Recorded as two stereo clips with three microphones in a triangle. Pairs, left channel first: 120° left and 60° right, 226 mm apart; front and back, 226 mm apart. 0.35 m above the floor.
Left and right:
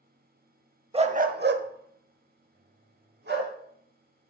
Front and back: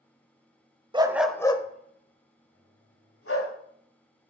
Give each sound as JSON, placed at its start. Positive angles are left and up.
{"t": 0.9, "sound": "a dog barking", "azimuth_deg": -115, "distance_m": 0.6}